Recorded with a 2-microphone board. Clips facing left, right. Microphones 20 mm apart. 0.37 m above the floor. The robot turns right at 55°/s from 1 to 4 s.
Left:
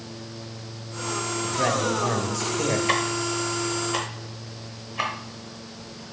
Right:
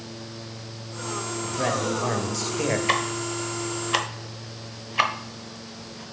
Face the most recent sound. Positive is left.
turn(degrees=-50)  # may be behind; listen again after turning